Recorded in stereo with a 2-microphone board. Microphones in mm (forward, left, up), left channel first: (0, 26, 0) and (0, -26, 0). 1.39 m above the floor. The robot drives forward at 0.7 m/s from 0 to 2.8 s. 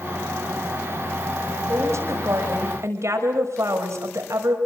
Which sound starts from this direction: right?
A woman speaking, at 1.7 s.